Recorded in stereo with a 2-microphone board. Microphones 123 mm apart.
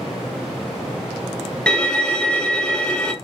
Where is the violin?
5° left (ahead or behind), 0.9 m.